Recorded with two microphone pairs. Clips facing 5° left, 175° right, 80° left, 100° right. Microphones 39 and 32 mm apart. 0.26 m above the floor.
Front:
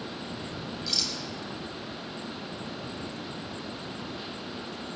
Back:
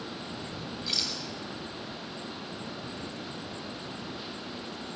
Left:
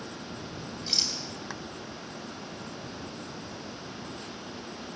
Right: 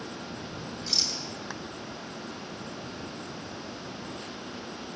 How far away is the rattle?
About 1.7 m.